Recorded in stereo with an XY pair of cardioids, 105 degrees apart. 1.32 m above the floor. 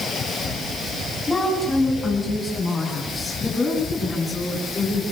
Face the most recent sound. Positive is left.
turn(degrees=30)